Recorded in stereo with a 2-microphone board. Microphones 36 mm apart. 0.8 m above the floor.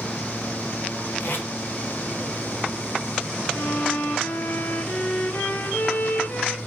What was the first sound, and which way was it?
Tape being pulled, 75° left (ahead or behind).